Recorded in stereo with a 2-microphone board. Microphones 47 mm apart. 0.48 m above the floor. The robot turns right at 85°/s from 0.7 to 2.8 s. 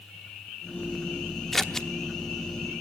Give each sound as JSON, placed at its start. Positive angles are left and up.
{"t": 1.5, "sound": "scissors", "side_deg": 5, "distance_m": 1.0}